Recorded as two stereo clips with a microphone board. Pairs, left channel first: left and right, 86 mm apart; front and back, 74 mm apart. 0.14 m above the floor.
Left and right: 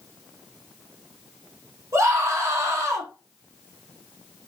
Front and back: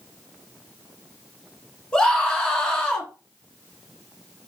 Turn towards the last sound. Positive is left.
turn(degrees=-70)